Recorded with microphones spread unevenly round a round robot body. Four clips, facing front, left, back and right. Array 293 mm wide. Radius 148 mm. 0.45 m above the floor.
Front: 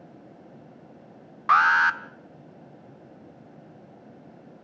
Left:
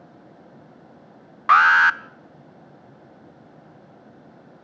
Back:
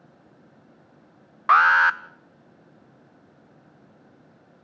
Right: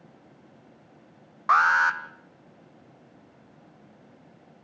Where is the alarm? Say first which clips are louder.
Left 5 dB, back 3 dB; 120° left, 0.8 m.